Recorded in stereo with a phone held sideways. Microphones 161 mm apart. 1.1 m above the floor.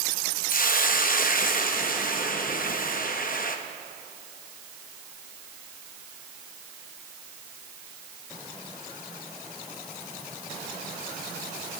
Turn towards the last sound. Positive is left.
turn(degrees=60)  # may be behind; listen again after turning